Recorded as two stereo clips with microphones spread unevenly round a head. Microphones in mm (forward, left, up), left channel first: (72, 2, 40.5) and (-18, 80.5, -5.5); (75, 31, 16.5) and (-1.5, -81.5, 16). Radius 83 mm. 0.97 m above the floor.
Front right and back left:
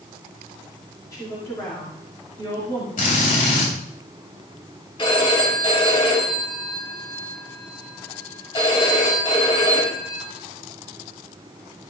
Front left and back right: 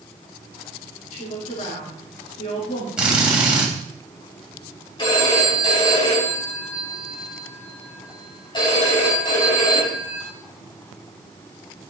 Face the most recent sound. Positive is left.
turn(degrees=0)